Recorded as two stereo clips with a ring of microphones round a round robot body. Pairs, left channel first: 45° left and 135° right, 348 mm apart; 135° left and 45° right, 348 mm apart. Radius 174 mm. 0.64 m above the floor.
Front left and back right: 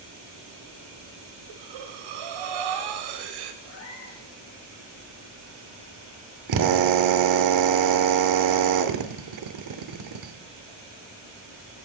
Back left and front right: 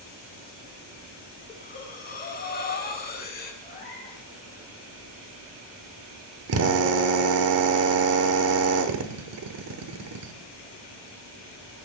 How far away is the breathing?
About 1.7 m.